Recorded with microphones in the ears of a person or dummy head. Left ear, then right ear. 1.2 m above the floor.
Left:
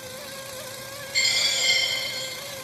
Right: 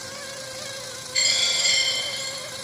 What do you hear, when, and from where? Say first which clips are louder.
1.1 s a dropped coin: right 1 dB; 15° left (ahead or behind), 1.1 m